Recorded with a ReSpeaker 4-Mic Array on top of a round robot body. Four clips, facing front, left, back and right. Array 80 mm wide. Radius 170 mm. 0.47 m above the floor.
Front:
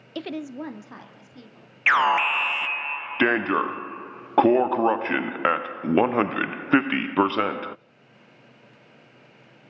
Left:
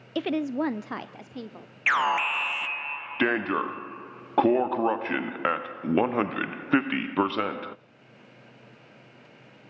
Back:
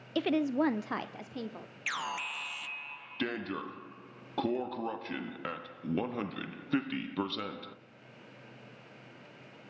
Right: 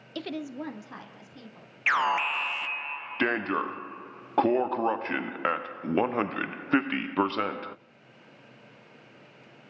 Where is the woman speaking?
100° left, 0.8 m; by 1.8 s 135° left, 2.5 m.